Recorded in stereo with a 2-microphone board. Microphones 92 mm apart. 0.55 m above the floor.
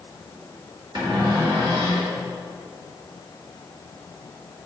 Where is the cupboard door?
55° right (ahead or behind), 1.7 m.